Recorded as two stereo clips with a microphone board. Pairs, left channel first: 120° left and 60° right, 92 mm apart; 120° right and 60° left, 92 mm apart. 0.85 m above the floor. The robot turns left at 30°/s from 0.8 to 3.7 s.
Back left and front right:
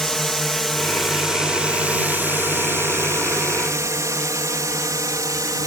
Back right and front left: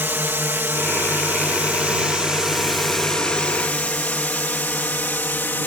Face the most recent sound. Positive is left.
turn(degrees=-65)